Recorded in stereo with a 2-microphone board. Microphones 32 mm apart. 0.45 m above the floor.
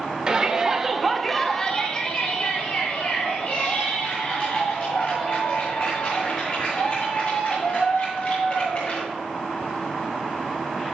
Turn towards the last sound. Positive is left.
turn(degrees=45)  # may be behind; listen again after turning